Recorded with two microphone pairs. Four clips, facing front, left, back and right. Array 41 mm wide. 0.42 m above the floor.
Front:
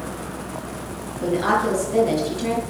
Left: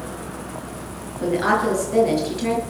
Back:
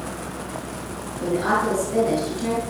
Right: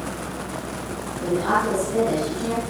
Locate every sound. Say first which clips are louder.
1.2 s a woman speaking: left 2 dB, front 1 dB; 85° left, 6.5 m